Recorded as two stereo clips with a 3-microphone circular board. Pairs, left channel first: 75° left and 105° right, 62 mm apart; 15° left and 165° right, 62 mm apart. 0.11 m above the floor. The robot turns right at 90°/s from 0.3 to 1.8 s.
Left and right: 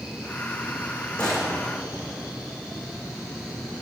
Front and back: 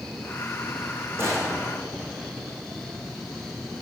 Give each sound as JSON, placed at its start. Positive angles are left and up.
{"t": 1.2, "sound": "a gunshot", "azimuth_deg": 145, "distance_m": 3.5}